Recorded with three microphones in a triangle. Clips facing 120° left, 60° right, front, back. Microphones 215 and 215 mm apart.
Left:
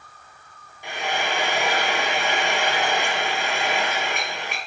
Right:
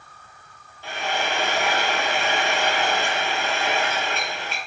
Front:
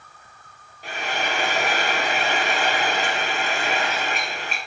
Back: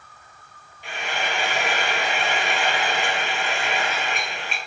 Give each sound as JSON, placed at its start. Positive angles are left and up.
{"t": 0.8, "sound": "frying", "azimuth_deg": 45, "distance_m": 0.9}